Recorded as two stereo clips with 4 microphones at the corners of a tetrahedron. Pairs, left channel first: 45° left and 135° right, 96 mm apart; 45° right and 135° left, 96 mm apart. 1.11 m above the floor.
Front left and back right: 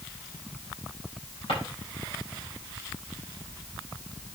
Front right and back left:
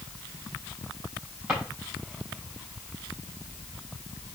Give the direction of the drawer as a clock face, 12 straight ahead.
10 o'clock.